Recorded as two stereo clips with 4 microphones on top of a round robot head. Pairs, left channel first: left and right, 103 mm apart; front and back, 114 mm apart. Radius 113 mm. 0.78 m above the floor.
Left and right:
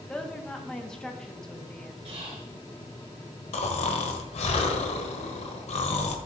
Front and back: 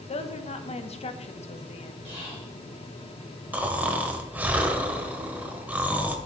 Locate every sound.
0.1 s a woman speaking: 5° left, 1.1 m
2.0 s whispering: 50° right, 3 m
3.5 s snoring: 100° left, 1.1 m